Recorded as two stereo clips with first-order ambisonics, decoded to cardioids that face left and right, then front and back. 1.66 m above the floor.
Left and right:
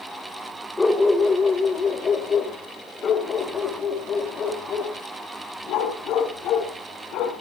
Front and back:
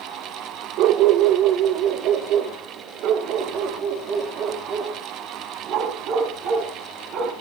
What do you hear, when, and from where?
0.8 s a dog barking: 170° left, 2.5 m; by 7.3 s 135° left, 6 m